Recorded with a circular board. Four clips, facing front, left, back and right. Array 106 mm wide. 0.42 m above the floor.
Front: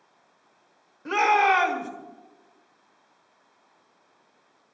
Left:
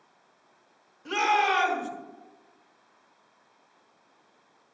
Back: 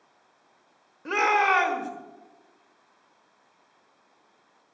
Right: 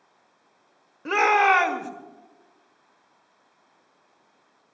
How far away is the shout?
About 1.7 m.